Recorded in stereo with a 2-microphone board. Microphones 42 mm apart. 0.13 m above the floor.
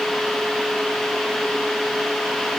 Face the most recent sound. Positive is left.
No sound to turn to.